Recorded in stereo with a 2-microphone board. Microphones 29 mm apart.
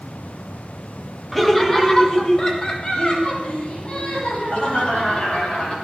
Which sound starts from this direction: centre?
Laughter, at 1.3 s.